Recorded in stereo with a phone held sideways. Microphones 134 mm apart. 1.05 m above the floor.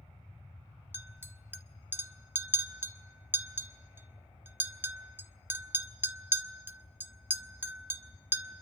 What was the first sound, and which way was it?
A clink, 15° right (ahead or behind).